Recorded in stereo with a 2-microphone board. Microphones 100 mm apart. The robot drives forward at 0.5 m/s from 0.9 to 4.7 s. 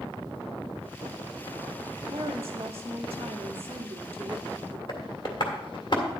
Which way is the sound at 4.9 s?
50° left (ahead or behind).